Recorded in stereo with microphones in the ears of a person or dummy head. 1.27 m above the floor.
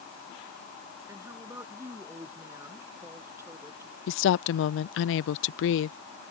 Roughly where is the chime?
I don't hear a chime.